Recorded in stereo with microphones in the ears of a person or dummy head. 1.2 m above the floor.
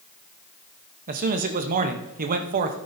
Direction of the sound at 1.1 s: 45° right (ahead or behind).